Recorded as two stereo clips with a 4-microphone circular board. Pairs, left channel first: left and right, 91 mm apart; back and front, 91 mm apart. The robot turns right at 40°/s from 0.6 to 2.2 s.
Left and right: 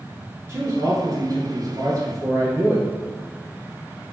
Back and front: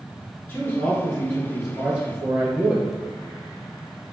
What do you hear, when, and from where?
0.5 s a man speaking: 125° right, 1.4 m; by 2.9 s 60° right, 1.4 m